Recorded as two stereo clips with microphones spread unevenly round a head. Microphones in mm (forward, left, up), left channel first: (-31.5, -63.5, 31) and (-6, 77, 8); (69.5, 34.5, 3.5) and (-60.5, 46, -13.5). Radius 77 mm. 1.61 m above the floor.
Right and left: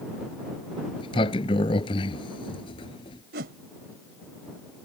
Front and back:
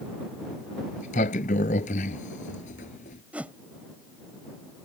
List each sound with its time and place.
1.0 s a sliding door: 45° right
3.3 s a whoosh: 90° left